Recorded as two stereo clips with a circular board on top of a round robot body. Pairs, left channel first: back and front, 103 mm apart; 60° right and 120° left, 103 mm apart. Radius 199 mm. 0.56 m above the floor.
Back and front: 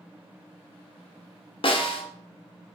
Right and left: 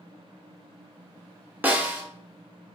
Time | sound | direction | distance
1.6 | a snare drum | 170° right | 1.2 m